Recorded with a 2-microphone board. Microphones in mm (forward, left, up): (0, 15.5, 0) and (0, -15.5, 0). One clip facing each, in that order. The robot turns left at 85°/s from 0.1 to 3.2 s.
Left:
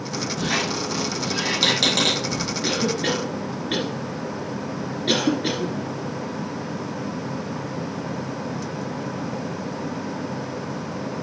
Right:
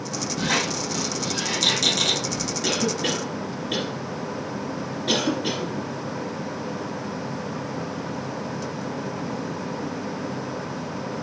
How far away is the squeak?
About 2.5 m.